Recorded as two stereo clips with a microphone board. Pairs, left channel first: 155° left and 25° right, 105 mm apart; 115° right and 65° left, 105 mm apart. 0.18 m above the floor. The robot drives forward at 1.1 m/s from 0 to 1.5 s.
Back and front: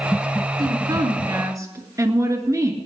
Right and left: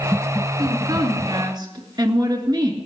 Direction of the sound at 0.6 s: 20° left.